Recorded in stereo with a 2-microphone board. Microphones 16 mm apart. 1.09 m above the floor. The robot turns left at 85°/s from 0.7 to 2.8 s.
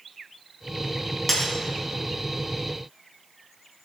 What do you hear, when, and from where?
1.3 s breaking glass: 10° right (ahead or behind), 4.5 m; by 1.5 s 10° left (ahead or behind), 4.5 m